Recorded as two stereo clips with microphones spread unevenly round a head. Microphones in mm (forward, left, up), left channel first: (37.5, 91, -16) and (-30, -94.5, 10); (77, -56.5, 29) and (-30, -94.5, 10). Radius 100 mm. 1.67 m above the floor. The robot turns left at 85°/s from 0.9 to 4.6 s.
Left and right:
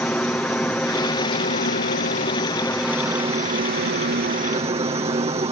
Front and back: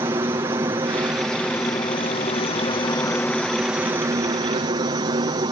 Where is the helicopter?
150° left; by 5.5 s 165° right.